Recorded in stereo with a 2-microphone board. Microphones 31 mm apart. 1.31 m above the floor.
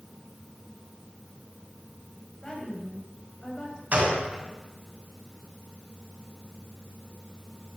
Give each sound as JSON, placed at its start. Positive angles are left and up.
{"t": 2.4, "sound": "a woman speaking", "side_deg": 25, "distance_m": 7.5}
{"t": 3.9, "sound": "a gunshot", "side_deg": -45, "distance_m": 6.0}